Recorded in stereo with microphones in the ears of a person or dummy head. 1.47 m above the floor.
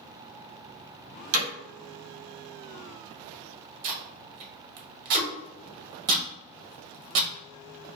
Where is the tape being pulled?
45° right (ahead or behind), 1.1 m.